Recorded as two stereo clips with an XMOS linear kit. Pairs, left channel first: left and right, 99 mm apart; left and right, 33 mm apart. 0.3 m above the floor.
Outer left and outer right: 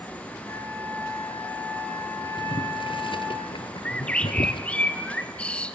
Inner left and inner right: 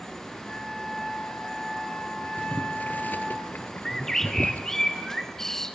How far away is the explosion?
I don't hear an explosion.